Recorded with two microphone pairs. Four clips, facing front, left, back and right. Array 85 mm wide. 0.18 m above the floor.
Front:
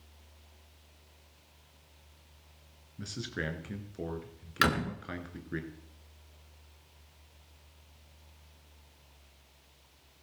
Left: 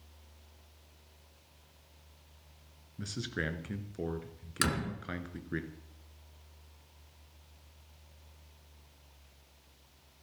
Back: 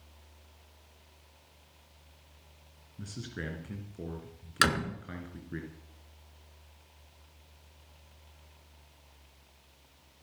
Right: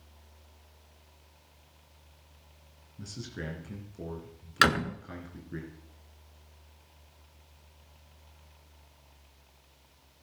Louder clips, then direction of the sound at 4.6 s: Right 9 dB, even; 105° right.